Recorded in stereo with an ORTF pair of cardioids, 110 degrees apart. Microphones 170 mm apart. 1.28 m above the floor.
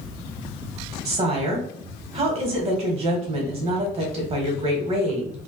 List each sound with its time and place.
1.1 s a woman speaking: 40° right, 1.3 m